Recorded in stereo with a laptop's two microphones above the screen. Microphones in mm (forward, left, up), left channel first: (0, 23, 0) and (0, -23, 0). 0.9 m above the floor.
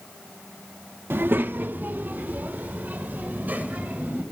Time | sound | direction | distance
1.1 | a child speaking | 55° right (ahead or behind) | 0.5 m